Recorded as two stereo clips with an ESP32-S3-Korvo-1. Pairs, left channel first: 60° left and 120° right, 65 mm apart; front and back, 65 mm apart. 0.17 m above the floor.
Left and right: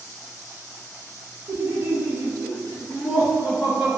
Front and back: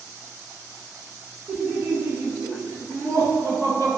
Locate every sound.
1.5 s laughter: 130° right, 1.4 m; by 4.0 s 160° left, 1.9 m